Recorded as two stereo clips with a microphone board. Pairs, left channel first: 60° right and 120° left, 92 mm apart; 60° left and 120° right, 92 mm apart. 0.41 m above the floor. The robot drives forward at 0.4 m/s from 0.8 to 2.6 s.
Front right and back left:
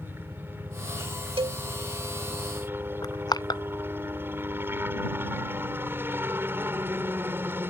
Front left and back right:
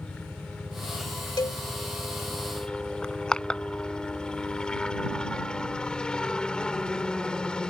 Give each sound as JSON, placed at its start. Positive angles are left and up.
{"t": 0.0, "sound": "a helicopter", "azimuth_deg": 120}
{"t": 1.4, "sound": "a cowbell", "azimuth_deg": 105}
{"t": 3.0, "sound": "crushing", "azimuth_deg": -20}